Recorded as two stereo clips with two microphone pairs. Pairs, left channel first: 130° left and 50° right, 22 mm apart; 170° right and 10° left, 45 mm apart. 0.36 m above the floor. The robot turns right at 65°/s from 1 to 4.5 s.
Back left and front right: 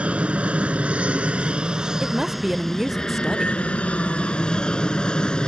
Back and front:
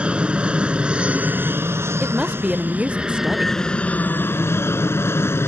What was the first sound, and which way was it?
An aircraft, 55° right.